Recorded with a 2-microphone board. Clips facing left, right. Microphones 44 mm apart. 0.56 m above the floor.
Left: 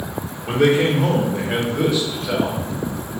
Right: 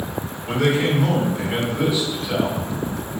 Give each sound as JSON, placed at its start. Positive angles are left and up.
{"t": 0.5, "sound": "a man speaking", "side_deg": 30, "distance_m": 1.3}